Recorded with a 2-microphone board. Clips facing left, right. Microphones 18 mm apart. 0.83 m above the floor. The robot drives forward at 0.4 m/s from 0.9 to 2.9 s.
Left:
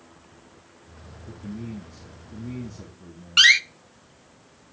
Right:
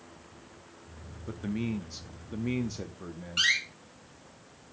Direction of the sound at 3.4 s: 55° left (ahead or behind).